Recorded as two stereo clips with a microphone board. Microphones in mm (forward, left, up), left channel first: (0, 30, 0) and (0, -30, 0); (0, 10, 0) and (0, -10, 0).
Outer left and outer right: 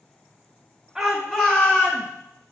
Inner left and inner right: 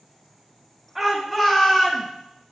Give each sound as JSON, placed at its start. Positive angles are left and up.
{"t": 0.9, "sound": "a shout", "side_deg": 0, "distance_m": 1.6}